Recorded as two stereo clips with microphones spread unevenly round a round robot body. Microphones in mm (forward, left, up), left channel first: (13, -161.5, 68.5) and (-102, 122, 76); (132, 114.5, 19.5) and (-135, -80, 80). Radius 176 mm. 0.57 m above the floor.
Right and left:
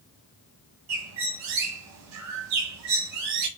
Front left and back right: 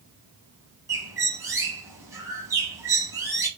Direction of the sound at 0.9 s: 140° left.